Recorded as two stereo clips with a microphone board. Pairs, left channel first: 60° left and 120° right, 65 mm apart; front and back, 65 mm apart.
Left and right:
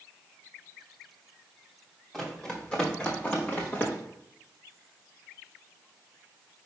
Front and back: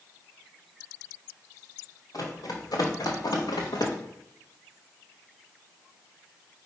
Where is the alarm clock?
No alarm clock in this recording.